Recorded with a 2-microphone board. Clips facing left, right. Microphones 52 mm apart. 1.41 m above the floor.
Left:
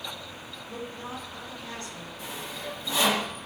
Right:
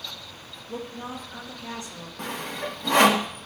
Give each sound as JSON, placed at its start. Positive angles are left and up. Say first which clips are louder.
{"t": 0.7, "sound": "a woman speaking", "louder": "right 3 dB", "side_deg": -15, "distance_m": 2.5}
{"t": 2.2, "sound": "sawing", "louder": "right 7 dB", "side_deg": -55, "distance_m": 0.8}